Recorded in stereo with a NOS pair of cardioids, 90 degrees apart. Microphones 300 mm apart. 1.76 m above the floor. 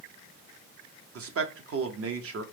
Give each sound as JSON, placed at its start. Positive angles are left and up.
{"t": 1.1, "sound": "a man speaking", "azimuth_deg": -50, "distance_m": 0.9}